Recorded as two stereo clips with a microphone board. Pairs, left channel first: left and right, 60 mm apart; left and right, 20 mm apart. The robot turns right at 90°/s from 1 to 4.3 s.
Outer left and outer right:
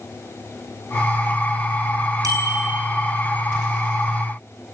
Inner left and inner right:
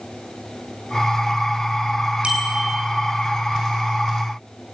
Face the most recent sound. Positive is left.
turn(degrees=110)